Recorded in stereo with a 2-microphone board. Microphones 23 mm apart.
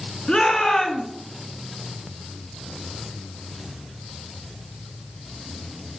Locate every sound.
0.3 s a shout: 40° left (ahead or behind), 2.5 m